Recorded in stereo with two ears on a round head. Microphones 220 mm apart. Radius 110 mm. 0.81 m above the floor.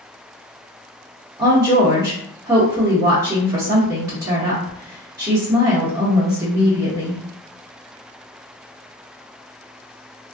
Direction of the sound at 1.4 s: 15° right (ahead or behind).